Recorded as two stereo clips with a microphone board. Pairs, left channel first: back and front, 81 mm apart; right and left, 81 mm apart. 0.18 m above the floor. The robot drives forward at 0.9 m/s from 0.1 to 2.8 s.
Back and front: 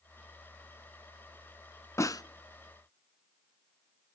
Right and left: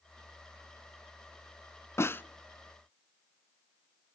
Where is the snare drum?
135° right, 0.5 m; by 2.2 s 150° right, 0.7 m.